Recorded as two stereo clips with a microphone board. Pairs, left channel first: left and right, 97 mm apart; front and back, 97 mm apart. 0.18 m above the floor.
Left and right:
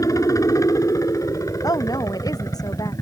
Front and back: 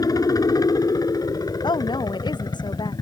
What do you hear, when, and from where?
0.0 s a helicopter: 40° left
1.6 s a woman speaking: 40° left